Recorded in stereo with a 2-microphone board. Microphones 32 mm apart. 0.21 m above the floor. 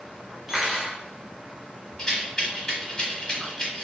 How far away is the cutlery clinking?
About 1.0 m.